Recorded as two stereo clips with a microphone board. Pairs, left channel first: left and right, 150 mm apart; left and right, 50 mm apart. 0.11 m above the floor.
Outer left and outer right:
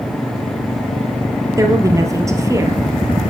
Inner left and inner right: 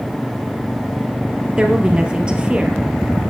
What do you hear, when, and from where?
1.6 s a woman speaking: 20° right (ahead or behind), 3 m